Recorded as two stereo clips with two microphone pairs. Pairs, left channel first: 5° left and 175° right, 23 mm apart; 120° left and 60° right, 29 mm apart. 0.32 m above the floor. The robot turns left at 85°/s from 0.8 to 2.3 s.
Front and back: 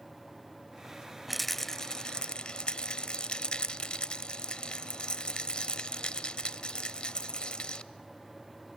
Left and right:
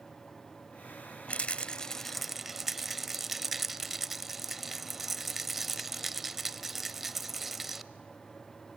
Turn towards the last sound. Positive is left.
turn(degrees=15)